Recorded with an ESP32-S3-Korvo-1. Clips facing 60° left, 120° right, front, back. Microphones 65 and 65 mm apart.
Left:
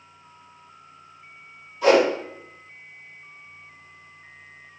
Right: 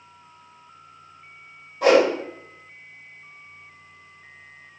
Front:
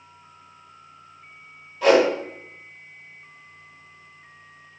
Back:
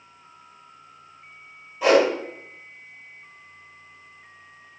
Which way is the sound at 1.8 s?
100° right.